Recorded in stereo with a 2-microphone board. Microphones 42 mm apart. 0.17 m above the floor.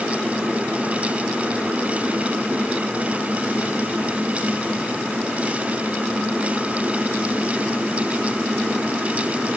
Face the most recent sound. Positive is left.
No sound to turn to.